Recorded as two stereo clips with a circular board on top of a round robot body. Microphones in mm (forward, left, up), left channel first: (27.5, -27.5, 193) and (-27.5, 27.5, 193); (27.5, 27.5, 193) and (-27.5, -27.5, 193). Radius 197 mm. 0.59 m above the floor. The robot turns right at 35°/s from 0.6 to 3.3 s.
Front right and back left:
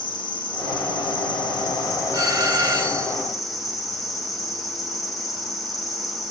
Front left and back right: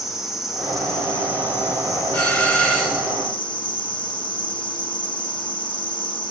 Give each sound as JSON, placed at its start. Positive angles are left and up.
{"t": 0.0, "sound": "an insect", "azimuth_deg": -50, "distance_m": 2.0}
{"t": 2.1, "sound": "a doorbell", "azimuth_deg": 110, "distance_m": 2.5}